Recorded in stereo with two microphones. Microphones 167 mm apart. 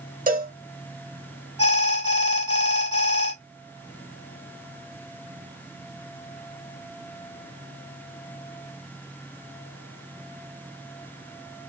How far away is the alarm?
About 1.9 m.